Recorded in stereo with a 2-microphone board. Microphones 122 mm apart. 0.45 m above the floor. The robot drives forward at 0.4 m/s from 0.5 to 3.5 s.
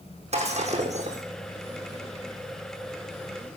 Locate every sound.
0.3 s breaking glass: 60° right (ahead or behind), 4 m; by 1.2 s 65° right (ahead or behind), 4 m